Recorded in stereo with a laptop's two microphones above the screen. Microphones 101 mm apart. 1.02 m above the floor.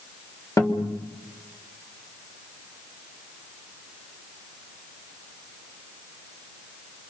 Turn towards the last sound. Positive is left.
turn(degrees=35)  # may be behind; listen again after turning